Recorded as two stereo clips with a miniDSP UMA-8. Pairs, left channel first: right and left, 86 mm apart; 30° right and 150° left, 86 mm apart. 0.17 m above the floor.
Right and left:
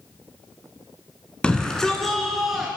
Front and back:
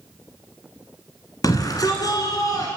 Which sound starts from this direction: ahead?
A shout, at 1.4 s.